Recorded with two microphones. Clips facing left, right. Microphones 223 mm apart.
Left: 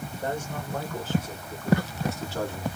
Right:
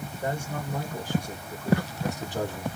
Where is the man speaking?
10° right (ahead or behind), 3.5 m; by 2.7 s 20° right (ahead or behind), 1.3 m.